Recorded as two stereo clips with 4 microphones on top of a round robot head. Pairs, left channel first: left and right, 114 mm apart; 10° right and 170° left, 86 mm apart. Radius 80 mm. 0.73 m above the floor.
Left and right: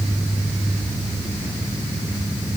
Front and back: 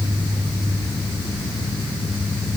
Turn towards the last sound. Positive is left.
No sound to turn to.